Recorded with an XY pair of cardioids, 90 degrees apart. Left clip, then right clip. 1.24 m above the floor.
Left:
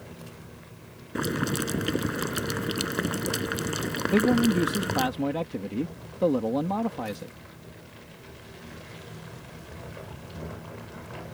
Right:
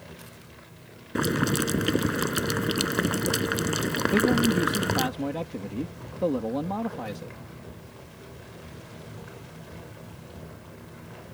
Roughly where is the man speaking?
Ahead.